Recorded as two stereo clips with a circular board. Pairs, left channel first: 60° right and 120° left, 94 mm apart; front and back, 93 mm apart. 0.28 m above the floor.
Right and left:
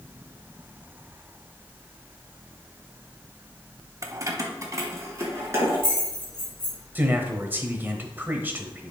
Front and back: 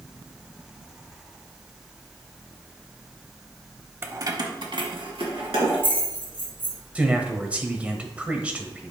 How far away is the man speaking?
About 0.9 m.